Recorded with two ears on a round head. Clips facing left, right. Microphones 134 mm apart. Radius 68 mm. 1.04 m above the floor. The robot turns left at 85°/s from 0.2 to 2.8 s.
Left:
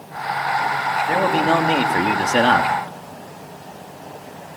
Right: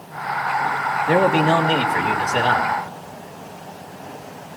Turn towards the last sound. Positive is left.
turn(degrees=70)